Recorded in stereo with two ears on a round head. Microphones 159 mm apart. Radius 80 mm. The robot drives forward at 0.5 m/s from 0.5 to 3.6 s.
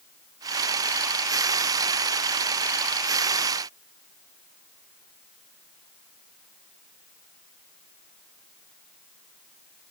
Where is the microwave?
No microwave in this recording.